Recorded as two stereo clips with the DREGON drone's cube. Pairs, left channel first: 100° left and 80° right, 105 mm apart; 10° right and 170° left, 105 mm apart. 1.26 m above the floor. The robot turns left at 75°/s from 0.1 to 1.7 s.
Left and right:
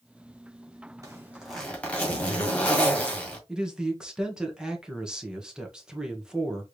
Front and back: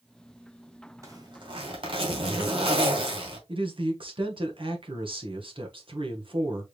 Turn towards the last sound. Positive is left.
turn(degrees=-160)